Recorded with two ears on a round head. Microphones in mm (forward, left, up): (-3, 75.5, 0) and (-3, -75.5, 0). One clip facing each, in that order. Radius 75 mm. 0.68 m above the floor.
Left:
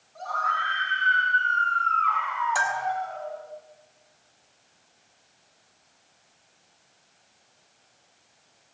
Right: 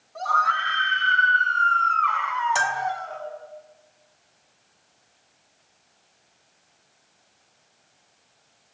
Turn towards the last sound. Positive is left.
turn(degrees=-30)  # may be behind; listen again after turning